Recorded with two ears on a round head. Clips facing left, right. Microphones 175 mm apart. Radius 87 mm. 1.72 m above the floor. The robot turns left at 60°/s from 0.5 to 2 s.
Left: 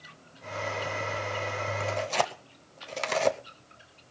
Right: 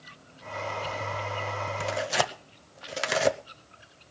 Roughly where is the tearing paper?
Right.